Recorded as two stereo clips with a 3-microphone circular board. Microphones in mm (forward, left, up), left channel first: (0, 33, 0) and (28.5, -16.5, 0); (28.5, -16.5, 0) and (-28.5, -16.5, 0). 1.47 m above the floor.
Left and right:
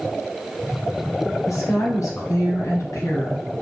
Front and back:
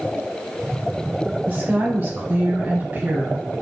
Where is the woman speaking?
130° left, 0.8 m.